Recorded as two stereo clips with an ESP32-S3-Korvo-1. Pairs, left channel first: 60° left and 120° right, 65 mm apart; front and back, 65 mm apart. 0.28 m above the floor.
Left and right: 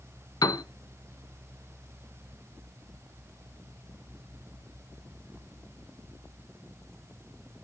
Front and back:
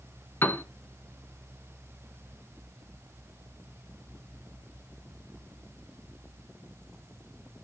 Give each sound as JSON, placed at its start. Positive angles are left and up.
{"t": 0.4, "sound": "a piano", "azimuth_deg": 50, "distance_m": 0.7}